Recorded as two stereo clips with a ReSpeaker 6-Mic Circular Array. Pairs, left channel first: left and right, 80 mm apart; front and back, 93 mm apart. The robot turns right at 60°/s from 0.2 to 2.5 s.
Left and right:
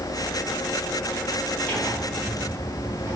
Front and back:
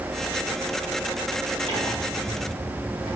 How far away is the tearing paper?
About 4 m.